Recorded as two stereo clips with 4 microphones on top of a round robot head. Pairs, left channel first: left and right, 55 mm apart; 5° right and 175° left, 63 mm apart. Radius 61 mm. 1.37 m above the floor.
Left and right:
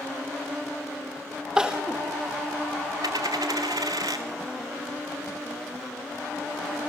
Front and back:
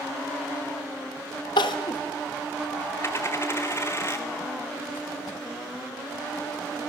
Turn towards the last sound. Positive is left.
turn(degrees=-70)